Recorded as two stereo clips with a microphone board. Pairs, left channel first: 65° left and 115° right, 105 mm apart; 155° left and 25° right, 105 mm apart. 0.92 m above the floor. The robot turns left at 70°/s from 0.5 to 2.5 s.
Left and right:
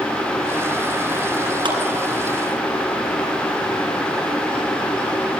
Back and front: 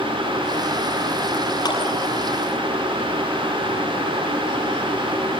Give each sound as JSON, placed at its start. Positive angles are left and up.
{"t": 1.6, "sound": "a clap", "azimuth_deg": -150, "distance_m": 8.0}